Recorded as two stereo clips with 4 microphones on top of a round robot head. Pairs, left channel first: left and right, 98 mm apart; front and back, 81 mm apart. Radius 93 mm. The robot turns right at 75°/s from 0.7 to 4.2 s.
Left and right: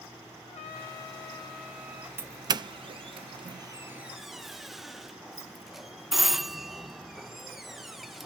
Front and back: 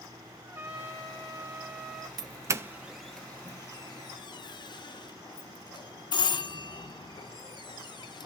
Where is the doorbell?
155° right, 0.5 m; by 8.3 s straight ahead, 0.5 m.